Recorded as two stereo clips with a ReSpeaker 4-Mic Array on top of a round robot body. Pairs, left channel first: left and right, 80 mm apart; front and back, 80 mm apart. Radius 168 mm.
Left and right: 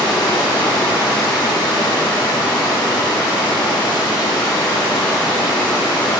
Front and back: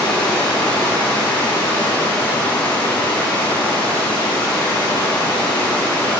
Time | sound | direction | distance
0.0 | running water | 75° left | 4 m